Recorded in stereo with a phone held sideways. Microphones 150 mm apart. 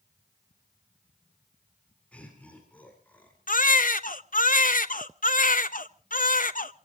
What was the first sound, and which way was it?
Laughter, 10° left (ahead or behind).